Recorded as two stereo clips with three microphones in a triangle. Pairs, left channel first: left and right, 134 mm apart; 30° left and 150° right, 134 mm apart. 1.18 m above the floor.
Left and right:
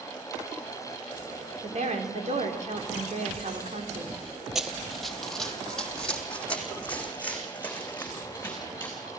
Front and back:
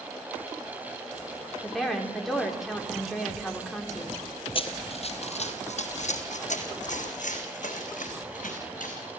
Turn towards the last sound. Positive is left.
turn(degrees=15)